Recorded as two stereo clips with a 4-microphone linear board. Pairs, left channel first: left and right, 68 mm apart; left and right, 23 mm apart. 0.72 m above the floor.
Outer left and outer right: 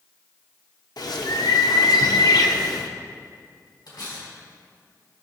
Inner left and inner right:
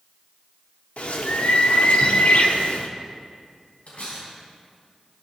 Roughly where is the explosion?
No explosion in this recording.